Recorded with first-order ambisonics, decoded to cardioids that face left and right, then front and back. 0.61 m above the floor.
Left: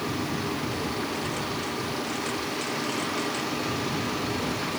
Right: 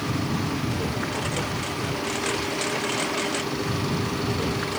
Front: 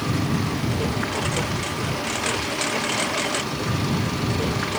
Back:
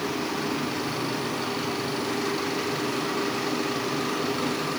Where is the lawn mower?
25° right.